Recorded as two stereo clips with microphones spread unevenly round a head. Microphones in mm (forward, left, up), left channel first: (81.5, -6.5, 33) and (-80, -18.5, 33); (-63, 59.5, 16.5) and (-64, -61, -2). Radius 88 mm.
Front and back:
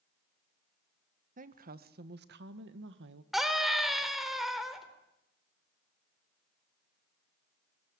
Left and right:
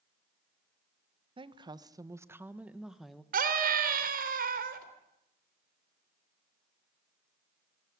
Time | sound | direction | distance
1.4 | a woman speaking | 135° right | 1.6 m
3.3 | a scream | 85° right | 4 m